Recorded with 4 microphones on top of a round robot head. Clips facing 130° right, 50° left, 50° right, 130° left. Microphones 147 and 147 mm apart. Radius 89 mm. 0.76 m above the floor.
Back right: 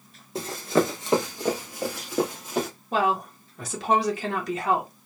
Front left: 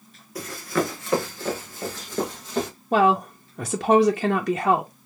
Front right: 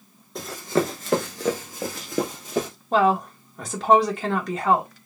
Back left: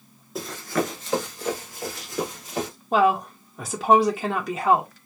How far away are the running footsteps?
About 0.7 m.